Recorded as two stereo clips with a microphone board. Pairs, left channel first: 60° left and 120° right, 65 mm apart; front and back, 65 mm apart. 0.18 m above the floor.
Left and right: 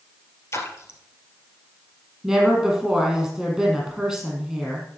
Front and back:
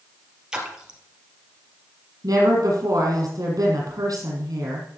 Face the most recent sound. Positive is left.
turn(degrees=155)